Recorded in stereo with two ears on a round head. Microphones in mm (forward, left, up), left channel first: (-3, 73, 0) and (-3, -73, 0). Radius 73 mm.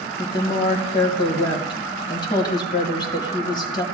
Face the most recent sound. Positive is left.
turn(degrees=30)  # may be behind; listen again after turning